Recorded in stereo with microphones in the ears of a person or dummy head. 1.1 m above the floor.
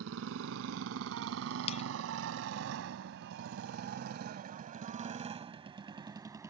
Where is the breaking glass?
35° left (ahead or behind).